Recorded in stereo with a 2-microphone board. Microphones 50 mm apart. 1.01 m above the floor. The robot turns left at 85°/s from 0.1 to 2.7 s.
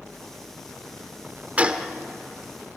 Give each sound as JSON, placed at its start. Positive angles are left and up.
{"t": 1.6, "sound": "a gunshot", "side_deg": -30, "distance_m": 1.0}